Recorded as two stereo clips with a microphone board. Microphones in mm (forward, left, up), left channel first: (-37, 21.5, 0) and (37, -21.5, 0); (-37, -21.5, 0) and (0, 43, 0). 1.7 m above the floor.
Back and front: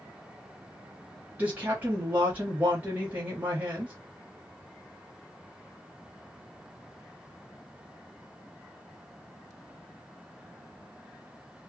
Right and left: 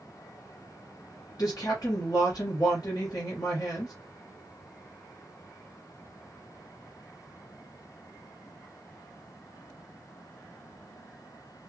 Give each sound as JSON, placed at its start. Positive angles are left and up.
{"t": 1.4, "sound": "a woman speaking", "azimuth_deg": -100, "distance_m": 1.5}